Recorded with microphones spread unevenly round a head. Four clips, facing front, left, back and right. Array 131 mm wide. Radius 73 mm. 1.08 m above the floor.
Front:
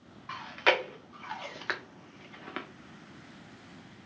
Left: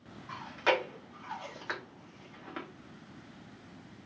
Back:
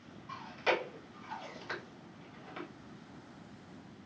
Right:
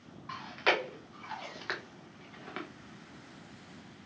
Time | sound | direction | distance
0.3 | chewing | 15° right | 1.0 m